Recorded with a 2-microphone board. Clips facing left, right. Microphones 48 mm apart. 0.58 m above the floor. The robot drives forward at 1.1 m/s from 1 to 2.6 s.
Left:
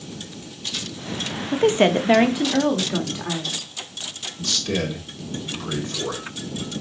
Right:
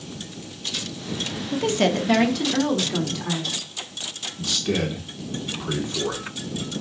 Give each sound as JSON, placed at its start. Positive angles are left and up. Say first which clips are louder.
{"t": 1.5, "sound": "a woman speaking", "louder": "left 4 dB", "side_deg": 25, "distance_m": 0.7}
{"t": 4.4, "sound": "a man speaking", "louder": "right 1 dB", "side_deg": -15, "distance_m": 1.7}